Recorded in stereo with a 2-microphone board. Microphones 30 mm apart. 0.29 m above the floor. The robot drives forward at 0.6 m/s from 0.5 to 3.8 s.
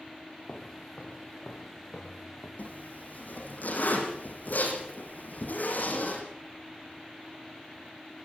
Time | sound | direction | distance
0.5 | footsteps | 45° left (ahead or behind) | 3.5 m
2.6 | a zipper | 65° left (ahead or behind) | 7.5 m